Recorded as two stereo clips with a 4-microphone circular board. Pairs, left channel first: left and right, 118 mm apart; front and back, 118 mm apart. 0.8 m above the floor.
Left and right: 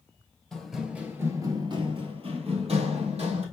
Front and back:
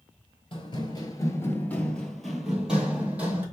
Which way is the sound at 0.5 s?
5° left.